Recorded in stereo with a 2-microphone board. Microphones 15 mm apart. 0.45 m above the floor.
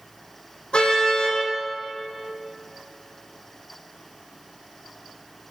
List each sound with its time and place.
0.7 s a car horn: 85° left, 8.5 m